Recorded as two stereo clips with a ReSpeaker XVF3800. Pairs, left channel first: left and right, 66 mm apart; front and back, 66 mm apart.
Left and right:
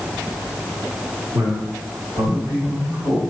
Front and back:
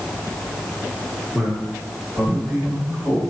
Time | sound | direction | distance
1.3 | a man speaking | 95° right | 2.0 m